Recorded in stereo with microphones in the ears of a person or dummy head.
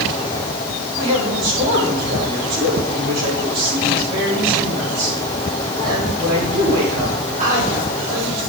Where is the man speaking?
50° right (ahead or behind), 7.5 m.